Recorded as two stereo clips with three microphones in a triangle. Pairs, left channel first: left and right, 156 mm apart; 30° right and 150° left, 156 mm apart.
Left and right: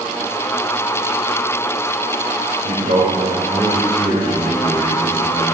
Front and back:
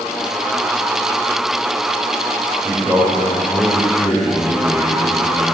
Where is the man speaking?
135° right, 4 m; by 5.4 s 140° right, 6.5 m.